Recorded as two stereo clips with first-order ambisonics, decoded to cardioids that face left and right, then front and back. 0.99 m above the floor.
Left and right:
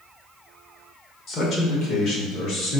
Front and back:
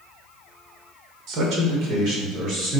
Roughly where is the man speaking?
Behind left.